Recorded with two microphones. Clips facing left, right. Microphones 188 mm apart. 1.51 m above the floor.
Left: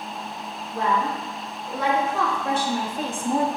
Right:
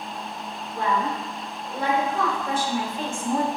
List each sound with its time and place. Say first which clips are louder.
0.7 s a woman speaking: left 1 dB; 80° left, 1.5 m; by 3.5 s 15° left (ahead or behind), 0.5 m